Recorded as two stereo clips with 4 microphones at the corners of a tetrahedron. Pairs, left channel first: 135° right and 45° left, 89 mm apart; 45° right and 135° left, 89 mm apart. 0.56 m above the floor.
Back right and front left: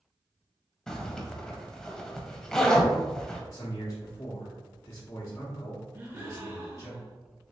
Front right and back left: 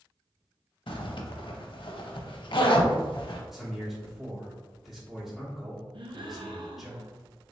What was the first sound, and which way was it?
A zipper, 55° right.